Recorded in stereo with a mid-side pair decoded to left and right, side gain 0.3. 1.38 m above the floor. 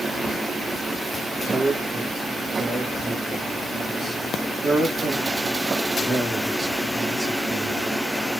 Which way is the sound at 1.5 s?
60° right.